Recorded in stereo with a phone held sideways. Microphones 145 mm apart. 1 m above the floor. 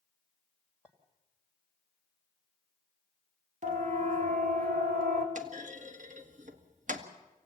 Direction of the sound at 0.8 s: 10° right (ahead or behind).